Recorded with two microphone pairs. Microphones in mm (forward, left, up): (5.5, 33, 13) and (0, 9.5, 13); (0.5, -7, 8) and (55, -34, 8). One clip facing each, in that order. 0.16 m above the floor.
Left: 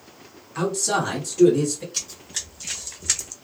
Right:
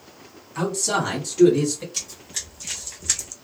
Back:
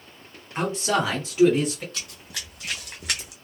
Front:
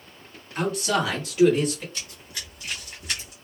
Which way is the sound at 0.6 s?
135° left.